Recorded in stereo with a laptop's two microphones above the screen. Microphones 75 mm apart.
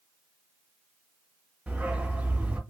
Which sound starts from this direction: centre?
A dog barking, at 1.7 s.